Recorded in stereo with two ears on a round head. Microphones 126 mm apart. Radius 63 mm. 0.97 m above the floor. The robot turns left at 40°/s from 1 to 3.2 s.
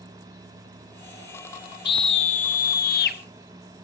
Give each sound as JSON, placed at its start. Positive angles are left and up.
{"t": 1.9, "sound": "a scream", "azimuth_deg": 140, "distance_m": 1.9}